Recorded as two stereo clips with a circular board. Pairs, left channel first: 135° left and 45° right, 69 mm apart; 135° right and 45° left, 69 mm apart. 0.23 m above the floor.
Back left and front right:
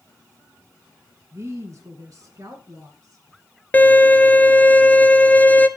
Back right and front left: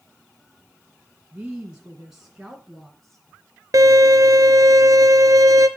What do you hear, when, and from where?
1.3 s a woman speaking: 25° right, 2 m; by 3.2 s 45° right, 3 m
3.7 s a violin: 70° left, 0.9 m